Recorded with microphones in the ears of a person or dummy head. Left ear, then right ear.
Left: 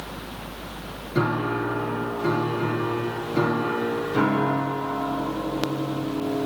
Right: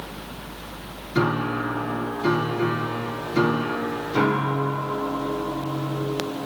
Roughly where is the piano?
Centre.